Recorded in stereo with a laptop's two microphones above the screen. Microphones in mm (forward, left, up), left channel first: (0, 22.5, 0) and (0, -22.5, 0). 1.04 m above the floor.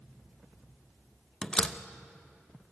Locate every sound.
1.4 s a door slam: 20° left (ahead or behind), 0.8 m